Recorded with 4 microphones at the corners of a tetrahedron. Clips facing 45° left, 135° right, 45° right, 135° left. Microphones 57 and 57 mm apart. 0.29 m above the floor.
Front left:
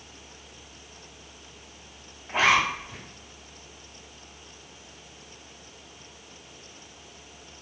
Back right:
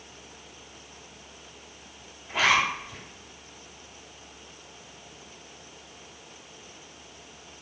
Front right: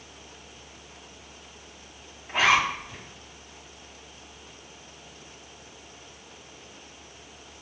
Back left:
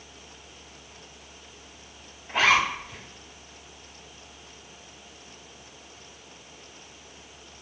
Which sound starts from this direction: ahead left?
A zipper, at 2.3 s.